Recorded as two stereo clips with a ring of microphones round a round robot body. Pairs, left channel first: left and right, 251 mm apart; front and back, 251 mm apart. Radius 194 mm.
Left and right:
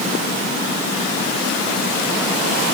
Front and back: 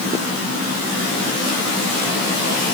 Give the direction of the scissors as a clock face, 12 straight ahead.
No scissors in this recording.